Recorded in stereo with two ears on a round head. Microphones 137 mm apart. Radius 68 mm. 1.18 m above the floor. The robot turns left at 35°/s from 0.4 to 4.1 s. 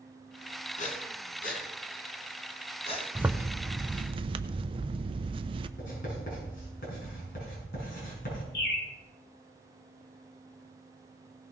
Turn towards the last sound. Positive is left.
turn(degrees=80)